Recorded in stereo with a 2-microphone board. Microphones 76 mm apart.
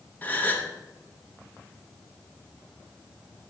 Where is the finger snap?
No finger snap in this recording.